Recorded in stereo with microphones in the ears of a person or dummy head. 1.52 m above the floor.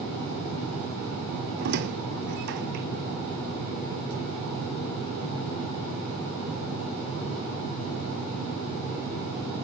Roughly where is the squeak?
Right.